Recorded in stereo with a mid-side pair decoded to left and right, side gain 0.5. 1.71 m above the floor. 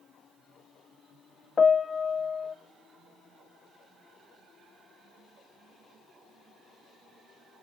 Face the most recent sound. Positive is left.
turn(degrees=35)